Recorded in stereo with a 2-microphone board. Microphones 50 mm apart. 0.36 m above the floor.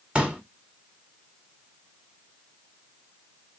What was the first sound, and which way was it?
A pop, 25° right (ahead or behind).